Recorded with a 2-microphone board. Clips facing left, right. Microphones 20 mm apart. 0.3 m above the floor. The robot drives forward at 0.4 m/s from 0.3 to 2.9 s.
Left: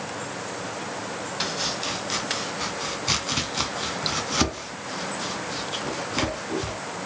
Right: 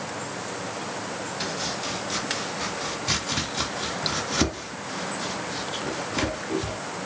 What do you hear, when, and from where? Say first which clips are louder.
1.4 s chopping: left 3 dB; 35° left (ahead or behind), 0.9 m; by 6.8 s 20° left (ahead or behind), 1.3 m